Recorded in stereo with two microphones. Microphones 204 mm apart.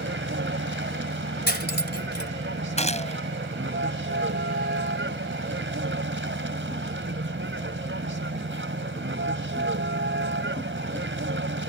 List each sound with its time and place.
0.0 s a vehicle: 70° right (ahead or behind)
1.5 s cutlery clinking: 55° left (ahead or behind)
2.8 s a gunshot: 35° left (ahead or behind)